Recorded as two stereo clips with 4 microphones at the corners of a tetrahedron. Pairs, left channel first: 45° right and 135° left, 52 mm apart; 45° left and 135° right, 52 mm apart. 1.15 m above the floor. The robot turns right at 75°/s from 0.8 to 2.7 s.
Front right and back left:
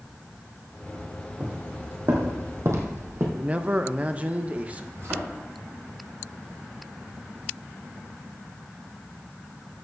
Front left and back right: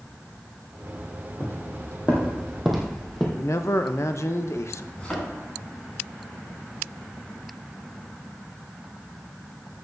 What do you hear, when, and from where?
1.4 s footsteps: 60° left, 2.5 m; by 3.3 s 130° left, 2.5 m
3.4 s a man speaking: 70° left, 0.7 m
5.0 s a thud: 110° left, 4 m